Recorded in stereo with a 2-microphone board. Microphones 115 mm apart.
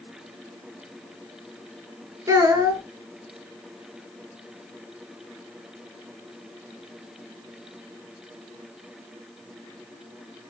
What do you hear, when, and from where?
2.3 s a child speaking: 30° right (ahead or behind), 1.0 m